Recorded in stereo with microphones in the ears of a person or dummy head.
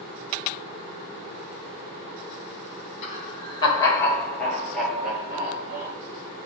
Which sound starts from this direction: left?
Laughter, at 3.0 s.